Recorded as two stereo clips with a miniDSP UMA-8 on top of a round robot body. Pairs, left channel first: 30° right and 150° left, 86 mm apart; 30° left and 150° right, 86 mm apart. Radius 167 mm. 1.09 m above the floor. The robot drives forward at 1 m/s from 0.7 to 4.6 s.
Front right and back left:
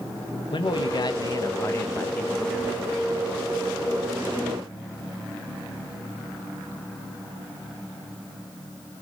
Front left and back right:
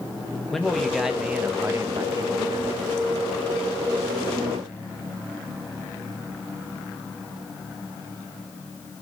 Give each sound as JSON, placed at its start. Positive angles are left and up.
{"t": 0.5, "sound": "a man speaking", "azimuth_deg": -60, "distance_m": 2.0}